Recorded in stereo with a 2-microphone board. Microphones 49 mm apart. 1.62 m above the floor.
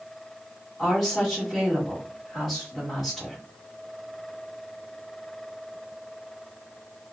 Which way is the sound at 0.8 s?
10° left (ahead or behind).